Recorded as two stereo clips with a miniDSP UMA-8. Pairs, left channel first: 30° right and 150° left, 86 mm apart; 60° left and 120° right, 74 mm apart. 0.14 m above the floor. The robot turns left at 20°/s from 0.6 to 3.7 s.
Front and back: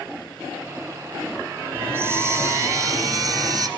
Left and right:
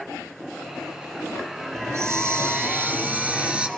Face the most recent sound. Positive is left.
turn(degrees=170)